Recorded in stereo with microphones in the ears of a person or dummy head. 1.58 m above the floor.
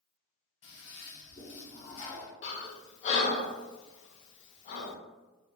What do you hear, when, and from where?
0.6 s a toilet flushing: 25° left (ahead or behind), 0.6 m
2.4 s breathing: 40° left (ahead or behind), 0.5 m